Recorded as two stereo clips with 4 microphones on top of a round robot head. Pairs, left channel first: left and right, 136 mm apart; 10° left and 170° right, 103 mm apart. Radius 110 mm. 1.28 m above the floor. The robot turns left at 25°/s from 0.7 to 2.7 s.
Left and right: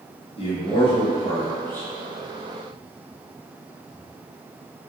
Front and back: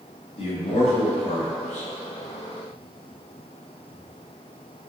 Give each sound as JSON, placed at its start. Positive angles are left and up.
{"t": 0.4, "sound": "a man speaking", "azimuth_deg": 40, "distance_m": 1.1}